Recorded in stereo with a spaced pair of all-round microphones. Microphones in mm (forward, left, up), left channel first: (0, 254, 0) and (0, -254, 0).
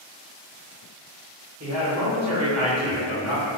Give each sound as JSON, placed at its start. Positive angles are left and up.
{"t": 1.6, "sound": "a man speaking", "side_deg": -30, "distance_m": 1.2}